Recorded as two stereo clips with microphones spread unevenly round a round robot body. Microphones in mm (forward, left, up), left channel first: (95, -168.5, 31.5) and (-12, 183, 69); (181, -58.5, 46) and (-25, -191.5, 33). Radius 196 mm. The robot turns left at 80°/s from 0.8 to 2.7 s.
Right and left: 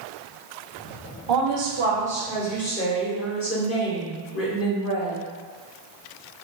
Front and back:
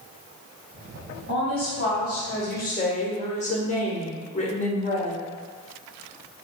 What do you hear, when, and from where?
1.3 s a woman speaking: 85° left, 1.1 m; by 5.2 s 30° right, 1.1 m